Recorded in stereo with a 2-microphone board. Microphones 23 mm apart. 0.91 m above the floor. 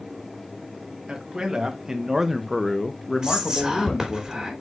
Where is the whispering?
20° right (ahead or behind), 3 m.